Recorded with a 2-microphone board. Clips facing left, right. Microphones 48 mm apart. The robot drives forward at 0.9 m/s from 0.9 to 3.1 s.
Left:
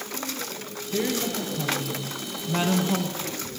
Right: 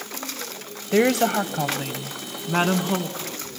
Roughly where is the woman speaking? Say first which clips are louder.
Right 8 dB; right.